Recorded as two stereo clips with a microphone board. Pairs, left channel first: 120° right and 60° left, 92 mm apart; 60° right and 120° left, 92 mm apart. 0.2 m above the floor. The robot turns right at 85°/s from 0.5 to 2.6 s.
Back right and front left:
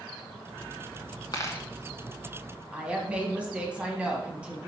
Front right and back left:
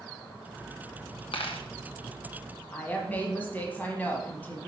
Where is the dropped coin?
70° right, 0.8 m; by 1.6 s 45° right, 0.8 m.